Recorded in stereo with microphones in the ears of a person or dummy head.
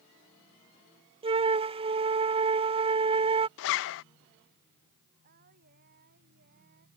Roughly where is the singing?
Right.